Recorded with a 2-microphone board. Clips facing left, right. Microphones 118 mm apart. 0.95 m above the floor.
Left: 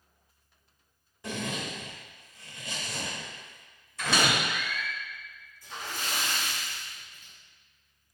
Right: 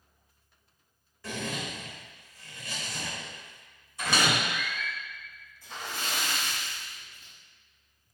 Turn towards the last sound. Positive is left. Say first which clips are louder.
# even
turn(degrees=-60)  # may be behind; listen again after turning